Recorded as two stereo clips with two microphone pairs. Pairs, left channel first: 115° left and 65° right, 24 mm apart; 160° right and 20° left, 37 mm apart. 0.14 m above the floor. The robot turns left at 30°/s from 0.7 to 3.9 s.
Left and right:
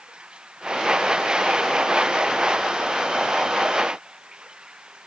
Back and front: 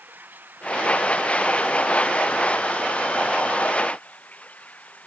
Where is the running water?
15° right; by 5.1 s 110° right.